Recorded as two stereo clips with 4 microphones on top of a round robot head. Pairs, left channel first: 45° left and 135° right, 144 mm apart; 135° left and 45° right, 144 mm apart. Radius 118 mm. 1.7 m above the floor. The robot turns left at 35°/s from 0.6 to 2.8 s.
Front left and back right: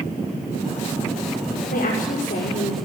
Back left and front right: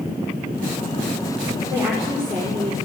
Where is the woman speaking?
20° left, 6 m; by 2.8 s 20° right, 6 m.